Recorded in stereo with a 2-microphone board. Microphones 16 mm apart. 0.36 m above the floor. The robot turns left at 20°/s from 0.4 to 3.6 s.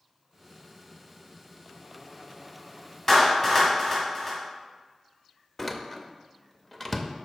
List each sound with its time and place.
3.1 s a clap: 25° left (ahead or behind), 1.7 m; by 4.4 s 15° left (ahead or behind), 1.7 m
5.6 s a door slam: 15° left (ahead or behind), 0.5 m